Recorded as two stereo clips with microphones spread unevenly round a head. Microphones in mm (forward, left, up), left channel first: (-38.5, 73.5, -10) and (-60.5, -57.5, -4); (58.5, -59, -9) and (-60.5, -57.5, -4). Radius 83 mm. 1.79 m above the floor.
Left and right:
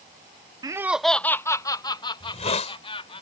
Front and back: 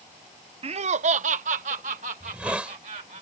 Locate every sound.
0.6 s laughter: 155° right; by 3.2 s 130° left
2.2 s a hiss: 105° left